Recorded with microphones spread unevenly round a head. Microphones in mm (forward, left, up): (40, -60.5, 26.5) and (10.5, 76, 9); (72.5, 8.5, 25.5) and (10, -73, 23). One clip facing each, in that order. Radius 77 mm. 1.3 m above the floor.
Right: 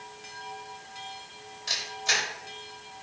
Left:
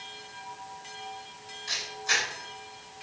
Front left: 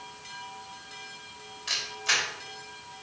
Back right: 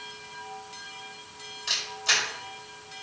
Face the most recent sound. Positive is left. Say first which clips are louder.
# right 1 dB, back right 1 dB
turn(degrees=-70)